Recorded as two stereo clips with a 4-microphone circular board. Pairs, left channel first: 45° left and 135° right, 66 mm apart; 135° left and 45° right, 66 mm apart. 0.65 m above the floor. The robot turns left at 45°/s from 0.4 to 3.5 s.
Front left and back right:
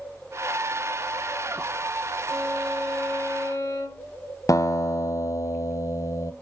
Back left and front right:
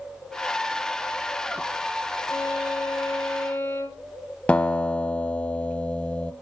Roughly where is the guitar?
Ahead left.